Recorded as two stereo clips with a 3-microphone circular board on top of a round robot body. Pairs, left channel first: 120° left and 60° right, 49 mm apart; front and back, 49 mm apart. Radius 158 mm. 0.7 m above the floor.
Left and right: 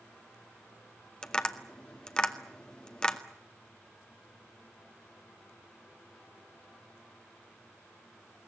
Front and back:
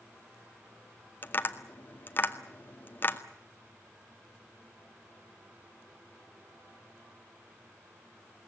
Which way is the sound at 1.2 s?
45° left.